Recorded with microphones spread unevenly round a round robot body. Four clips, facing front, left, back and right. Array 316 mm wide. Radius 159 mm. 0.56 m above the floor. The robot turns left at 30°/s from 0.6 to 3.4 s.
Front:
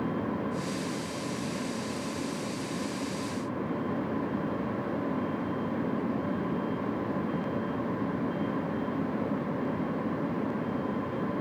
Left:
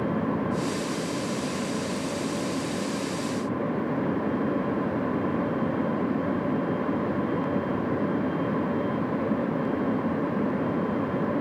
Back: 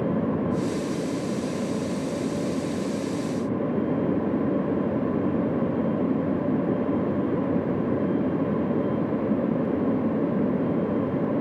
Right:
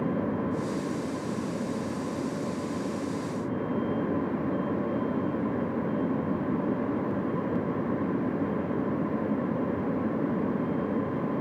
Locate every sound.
Only background noise.